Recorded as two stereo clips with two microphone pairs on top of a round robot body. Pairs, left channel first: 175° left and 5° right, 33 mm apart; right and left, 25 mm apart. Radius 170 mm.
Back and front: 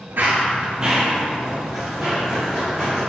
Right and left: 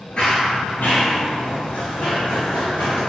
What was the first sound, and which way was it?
Running footsteps, 40° right.